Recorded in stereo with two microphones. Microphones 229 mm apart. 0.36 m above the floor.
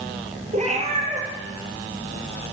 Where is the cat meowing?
30° right (ahead or behind), 5 m.